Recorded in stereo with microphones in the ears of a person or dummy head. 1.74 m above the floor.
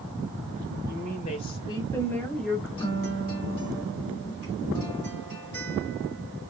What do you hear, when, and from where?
0.9 s a woman speaking: 50° left (ahead or behind), 1.1 m; by 2.7 s centre (ahead or behind), 1.4 m
2.8 s a guitar: 20° left (ahead or behind), 1.6 m